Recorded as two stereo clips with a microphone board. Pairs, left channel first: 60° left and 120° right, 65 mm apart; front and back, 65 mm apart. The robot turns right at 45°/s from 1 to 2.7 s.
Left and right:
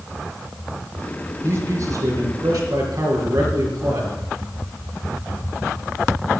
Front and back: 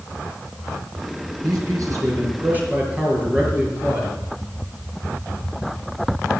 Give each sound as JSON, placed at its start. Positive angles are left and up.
{"t": 1.4, "sound": "a man speaking", "azimuth_deg": -170, "distance_m": 4.5}